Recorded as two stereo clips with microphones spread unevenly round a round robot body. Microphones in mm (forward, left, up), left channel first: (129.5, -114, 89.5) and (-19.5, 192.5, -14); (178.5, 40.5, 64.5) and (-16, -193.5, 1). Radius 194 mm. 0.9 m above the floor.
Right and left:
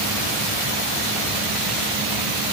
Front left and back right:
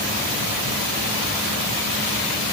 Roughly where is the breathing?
I don't hear breathing.